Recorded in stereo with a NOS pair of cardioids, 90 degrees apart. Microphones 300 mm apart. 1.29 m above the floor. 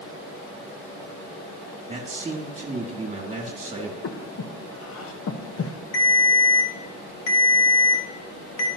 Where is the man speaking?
25° right, 2.5 m.